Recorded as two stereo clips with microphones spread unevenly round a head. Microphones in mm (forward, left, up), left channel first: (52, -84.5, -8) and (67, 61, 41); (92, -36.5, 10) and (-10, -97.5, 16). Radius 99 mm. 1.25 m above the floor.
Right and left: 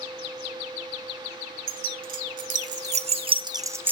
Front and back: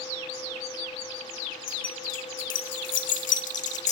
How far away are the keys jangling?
About 1.4 m.